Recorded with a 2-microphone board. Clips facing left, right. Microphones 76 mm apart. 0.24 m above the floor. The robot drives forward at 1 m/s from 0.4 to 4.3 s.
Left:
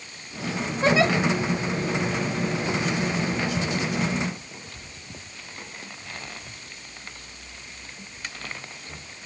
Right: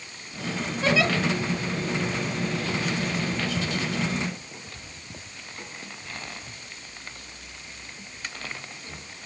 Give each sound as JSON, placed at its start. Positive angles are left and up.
{"t": 0.8, "sound": "a giggle", "side_deg": 30, "distance_m": 1.8}